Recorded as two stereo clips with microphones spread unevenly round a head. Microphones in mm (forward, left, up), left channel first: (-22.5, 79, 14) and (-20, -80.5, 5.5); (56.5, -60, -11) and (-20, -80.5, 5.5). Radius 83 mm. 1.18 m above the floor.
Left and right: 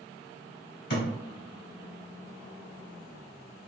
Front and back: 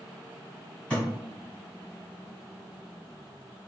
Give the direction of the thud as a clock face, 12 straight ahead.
9 o'clock.